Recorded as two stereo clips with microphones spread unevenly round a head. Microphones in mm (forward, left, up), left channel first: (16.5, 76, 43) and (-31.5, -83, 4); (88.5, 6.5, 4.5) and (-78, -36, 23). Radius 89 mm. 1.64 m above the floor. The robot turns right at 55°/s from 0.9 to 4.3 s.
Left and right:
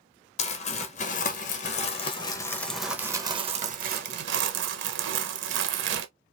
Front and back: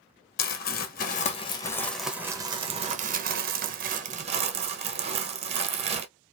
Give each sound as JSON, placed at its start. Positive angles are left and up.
{"t": 0.4, "sound": "crumpling", "azimuth_deg": 50, "distance_m": 1.1}